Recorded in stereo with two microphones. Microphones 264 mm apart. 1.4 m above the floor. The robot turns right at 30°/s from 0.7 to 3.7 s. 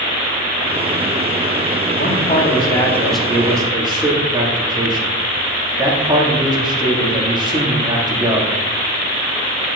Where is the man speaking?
145° left, 3 m; by 8.6 s 165° right, 3 m.